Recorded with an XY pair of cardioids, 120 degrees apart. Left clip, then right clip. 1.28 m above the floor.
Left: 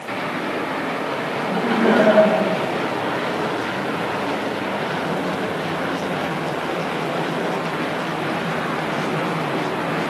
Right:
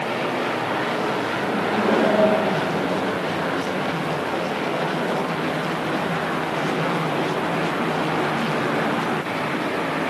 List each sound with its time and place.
1.4 s laughter: 55° left, 6 m